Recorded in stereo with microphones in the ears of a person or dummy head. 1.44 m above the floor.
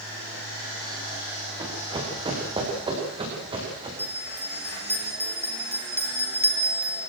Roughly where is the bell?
Centre.